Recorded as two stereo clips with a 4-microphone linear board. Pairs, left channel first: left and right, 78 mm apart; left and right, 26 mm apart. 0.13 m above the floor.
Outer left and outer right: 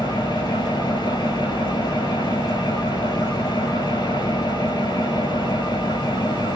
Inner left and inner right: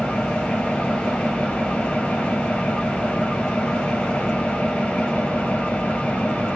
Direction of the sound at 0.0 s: 55° left (ahead or behind).